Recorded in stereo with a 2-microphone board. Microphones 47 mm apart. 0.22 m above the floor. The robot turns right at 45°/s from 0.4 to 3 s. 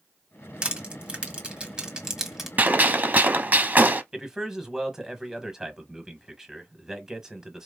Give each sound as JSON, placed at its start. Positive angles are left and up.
{"t": 0.6, "sound": "crushing", "side_deg": -20, "distance_m": 1.5}
{"t": 2.6, "sound": "a gunshot", "side_deg": -40, "distance_m": 0.7}
{"t": 4.1, "sound": "a man speaking", "side_deg": -10, "distance_m": 1.1}